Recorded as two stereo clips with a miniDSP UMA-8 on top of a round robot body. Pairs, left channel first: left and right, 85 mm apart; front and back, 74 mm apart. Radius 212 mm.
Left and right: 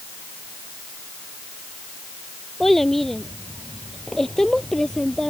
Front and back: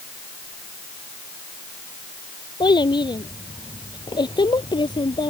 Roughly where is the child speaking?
Ahead.